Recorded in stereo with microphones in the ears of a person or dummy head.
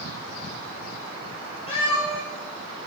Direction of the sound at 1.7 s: 40° left (ahead or behind).